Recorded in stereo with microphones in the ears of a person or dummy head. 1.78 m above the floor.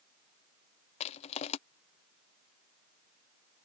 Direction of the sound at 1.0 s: 30° left (ahead or behind).